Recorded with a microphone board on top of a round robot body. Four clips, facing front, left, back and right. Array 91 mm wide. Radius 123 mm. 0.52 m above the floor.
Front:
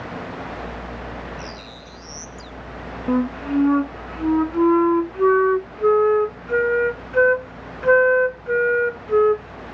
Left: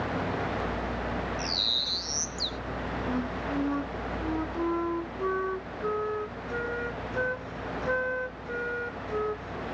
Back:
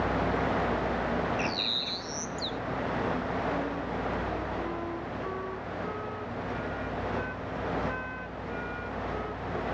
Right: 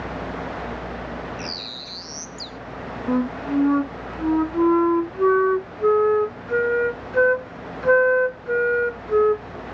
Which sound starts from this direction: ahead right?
A flute, at 3.1 s.